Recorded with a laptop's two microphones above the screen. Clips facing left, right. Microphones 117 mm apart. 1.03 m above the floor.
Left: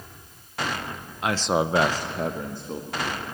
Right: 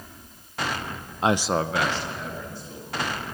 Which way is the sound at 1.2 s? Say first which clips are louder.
Right 1 dB; 35° right (ahead or behind).